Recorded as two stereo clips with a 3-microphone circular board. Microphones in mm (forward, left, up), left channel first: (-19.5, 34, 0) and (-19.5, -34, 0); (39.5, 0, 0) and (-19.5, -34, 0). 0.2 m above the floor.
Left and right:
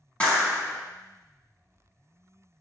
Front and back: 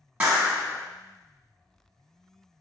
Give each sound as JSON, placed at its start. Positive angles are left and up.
{"t": 0.2, "sound": "a clap", "azimuth_deg": 150, "distance_m": 1.0}